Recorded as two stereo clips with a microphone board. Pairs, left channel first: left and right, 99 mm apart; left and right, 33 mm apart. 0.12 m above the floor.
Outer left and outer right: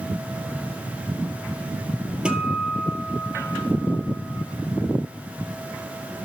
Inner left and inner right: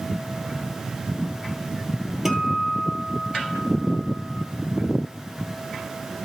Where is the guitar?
10° right (ahead or behind), 2 m.